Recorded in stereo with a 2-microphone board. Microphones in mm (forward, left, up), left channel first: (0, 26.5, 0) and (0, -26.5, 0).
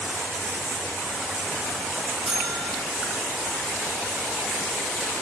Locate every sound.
2.3 s a bell: centre (ahead or behind), 8.5 m